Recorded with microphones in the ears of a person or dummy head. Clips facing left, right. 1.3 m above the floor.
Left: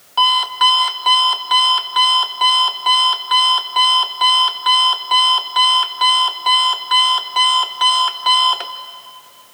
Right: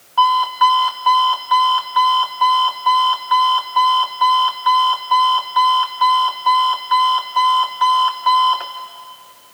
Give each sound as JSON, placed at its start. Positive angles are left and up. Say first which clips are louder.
{"t": 0.2, "sound": "an alarm clock", "louder": "right 4 dB", "side_deg": 50, "distance_m": 1.1}